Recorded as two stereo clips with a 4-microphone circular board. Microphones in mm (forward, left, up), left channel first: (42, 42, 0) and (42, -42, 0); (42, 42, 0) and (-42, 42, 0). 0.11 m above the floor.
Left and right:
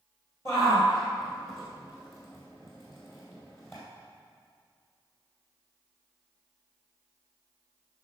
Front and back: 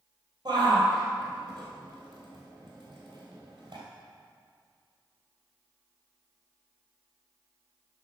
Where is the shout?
145° left, 2.5 m.